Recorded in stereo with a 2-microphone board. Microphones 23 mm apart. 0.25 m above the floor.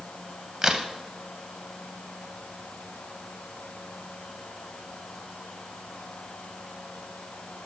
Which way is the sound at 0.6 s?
30° right (ahead or behind).